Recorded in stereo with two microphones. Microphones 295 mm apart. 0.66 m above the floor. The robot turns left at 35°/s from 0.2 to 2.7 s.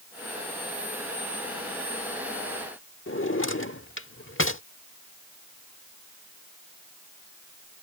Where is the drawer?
45° left (ahead or behind).